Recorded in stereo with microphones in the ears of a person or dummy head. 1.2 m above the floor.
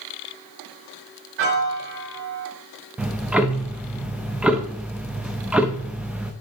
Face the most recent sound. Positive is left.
turn(degrees=-5)  # may be behind; listen again after turning